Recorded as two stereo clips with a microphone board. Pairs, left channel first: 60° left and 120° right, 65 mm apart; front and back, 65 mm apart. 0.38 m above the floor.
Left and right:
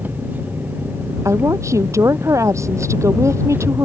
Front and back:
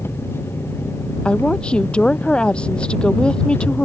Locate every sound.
0.0 s an engine running: 55° right
1.2 s a woman speaking: 75° right